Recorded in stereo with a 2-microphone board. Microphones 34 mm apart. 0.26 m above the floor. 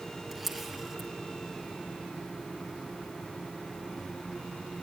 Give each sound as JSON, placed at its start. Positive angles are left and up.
{"t": 0.3, "sound": "a camera shutter", "side_deg": -10, "distance_m": 3.5}